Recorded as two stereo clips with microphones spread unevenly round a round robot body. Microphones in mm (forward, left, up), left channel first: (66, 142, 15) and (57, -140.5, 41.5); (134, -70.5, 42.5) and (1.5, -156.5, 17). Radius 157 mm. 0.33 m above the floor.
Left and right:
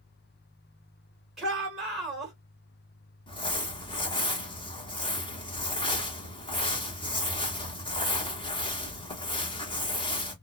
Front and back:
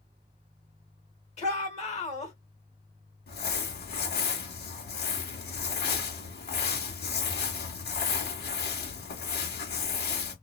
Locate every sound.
1.4 s a shout: 5° left, 1.3 m
3.3 s crumpling: 15° left, 1.1 m